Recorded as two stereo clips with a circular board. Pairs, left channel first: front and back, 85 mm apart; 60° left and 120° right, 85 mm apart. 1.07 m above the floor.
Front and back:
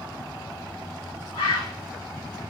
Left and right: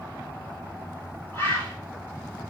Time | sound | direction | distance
1.3 | a bird | straight ahead | 1.6 m